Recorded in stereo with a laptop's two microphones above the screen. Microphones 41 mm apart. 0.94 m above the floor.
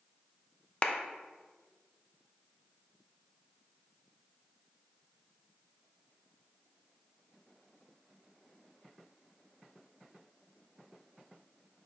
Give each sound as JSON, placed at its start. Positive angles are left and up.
{"t": 0.8, "sound": "a clap", "side_deg": 30, "distance_m": 0.5}